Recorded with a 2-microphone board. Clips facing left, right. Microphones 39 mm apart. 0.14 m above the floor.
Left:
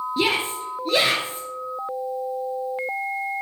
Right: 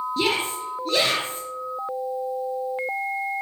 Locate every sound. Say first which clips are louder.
0.2 s a shout: left 2 dB; 20° left (ahead or behind), 3 m